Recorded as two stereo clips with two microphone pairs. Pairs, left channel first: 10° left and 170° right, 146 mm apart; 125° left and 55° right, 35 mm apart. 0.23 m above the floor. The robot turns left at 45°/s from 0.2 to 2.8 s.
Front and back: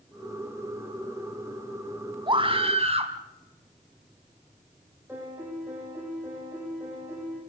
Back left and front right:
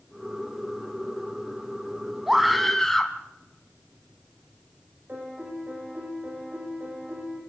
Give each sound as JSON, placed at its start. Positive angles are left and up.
{"t": 2.3, "sound": "a scream", "azimuth_deg": -130, "distance_m": 1.8}
{"t": 5.1, "sound": "a piano", "azimuth_deg": -95, "distance_m": 9.5}